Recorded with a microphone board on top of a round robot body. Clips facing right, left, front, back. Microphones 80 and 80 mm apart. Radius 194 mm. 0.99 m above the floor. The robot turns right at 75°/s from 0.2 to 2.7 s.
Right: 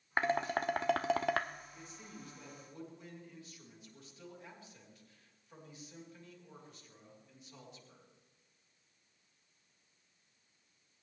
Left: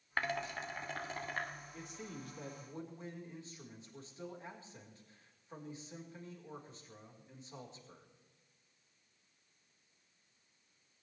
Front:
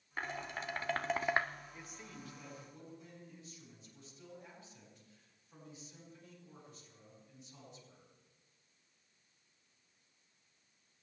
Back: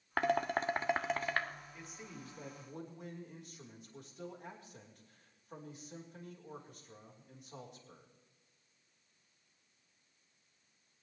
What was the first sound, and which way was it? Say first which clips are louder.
Dishes clattering: right 6 dB, back 10 dB; 160° right.